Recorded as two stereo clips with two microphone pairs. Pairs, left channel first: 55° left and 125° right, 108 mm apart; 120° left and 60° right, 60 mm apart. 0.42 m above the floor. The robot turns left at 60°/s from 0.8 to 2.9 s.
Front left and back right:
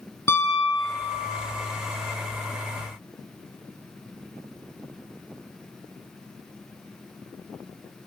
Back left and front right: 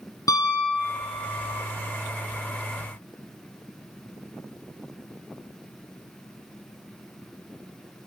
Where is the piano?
125° left, 3.5 m; by 1.5 s 80° left, 3.5 m.